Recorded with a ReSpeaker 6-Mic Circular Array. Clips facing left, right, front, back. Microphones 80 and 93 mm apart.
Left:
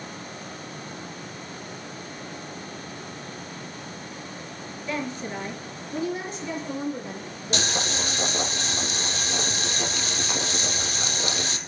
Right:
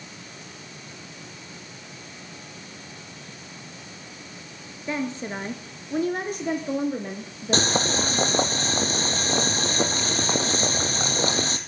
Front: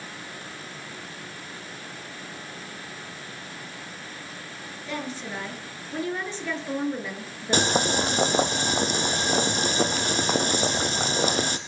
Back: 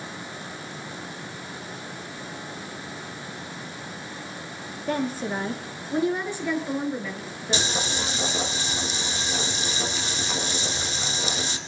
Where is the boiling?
40° right, 1.9 m.